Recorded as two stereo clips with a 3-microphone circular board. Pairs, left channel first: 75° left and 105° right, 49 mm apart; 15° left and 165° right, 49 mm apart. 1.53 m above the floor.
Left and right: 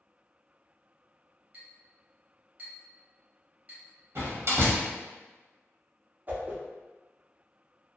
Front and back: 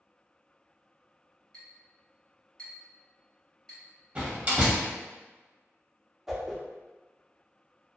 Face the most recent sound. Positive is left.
turn(degrees=-85)